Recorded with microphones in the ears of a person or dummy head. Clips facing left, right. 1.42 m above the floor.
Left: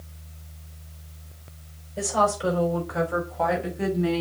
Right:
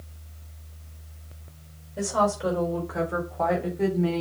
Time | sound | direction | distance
2.0 | a woman speaking | centre (ahead or behind) | 4.5 m